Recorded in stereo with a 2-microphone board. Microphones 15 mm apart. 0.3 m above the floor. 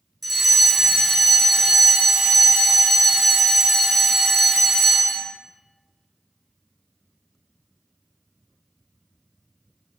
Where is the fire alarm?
Centre (ahead or behind), 2 m.